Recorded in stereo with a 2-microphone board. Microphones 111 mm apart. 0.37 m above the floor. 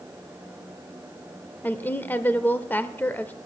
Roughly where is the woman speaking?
Centre.